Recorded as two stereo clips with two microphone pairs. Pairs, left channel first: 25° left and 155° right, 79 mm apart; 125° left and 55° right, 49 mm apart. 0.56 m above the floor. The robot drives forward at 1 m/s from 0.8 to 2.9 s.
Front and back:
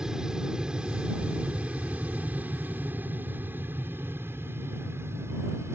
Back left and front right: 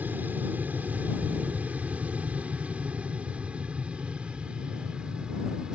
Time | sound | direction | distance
0.0 | an aircraft | 75° right | ?